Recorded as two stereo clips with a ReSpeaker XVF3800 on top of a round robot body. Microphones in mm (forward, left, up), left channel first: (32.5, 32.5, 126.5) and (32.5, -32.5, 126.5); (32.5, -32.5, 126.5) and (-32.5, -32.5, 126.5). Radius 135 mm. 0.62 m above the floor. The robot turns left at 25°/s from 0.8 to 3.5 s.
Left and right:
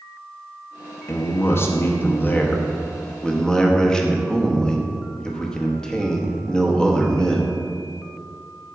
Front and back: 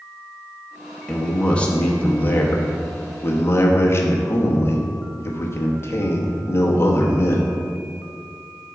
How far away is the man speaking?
About 1.0 m.